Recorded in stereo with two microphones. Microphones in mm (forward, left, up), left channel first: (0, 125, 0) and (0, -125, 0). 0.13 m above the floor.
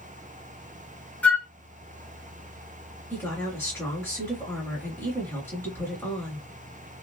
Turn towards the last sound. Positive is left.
turn(degrees=10)  # may be behind; listen again after turning